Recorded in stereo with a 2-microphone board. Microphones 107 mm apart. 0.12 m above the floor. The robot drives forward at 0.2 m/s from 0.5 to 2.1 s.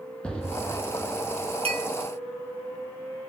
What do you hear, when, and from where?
0.2 s an explosion: 10° left (ahead or behind), 0.9 m
1.6 s a clink: 65° right (ahead or behind), 1.6 m